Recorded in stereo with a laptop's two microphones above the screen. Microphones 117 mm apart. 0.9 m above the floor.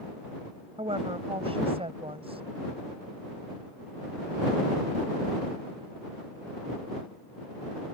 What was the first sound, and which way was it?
A woman speaking, 55° right (ahead or behind).